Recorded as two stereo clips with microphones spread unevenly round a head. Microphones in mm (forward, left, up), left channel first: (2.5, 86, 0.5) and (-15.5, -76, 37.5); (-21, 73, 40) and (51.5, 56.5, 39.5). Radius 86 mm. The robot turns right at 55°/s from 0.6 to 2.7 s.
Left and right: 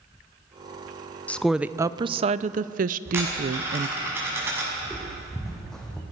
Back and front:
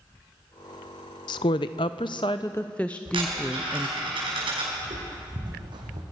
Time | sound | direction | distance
1.3 | a woman speaking | 170° left | 0.6 m
3.0 | a dropped coin | 20° right | 6.5 m
4.8 | footsteps | 15° right | 4 m